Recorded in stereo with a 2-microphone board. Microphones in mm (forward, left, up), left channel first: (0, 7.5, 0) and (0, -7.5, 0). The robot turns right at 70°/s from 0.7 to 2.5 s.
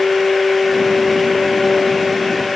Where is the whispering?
I don't hear whispering.